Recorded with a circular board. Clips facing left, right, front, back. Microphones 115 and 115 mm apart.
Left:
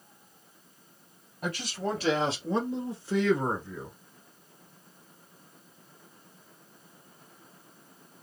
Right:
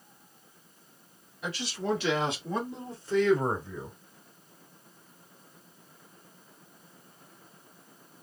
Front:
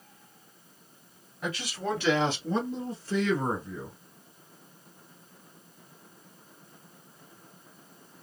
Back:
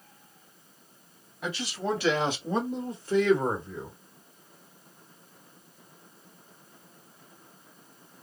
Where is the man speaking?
95° left, 1.5 m; by 3.9 s 140° right, 1.2 m.